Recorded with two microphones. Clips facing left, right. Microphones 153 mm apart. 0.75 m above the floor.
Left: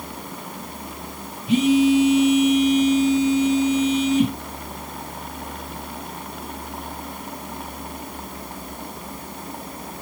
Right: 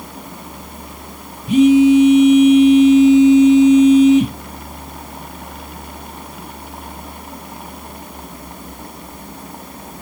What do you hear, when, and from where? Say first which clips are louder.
1.5 s a phone buzzing: right 7 dB; 45° right (ahead or behind), 2.5 m